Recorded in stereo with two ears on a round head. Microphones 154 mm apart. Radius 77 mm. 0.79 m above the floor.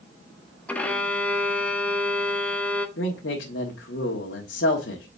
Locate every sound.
0.7 s a violin: 10° left (ahead or behind), 0.9 m
3.0 s a man speaking: 70° left (ahead or behind), 1.4 m